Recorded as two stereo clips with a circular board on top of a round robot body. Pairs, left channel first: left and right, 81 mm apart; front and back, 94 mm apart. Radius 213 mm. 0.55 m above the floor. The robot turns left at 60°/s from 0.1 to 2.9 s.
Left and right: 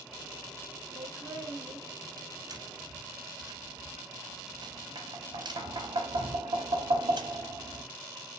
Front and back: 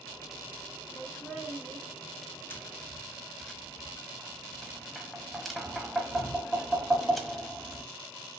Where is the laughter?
65° right, 2.5 m; by 1.8 s 115° right, 2.5 m.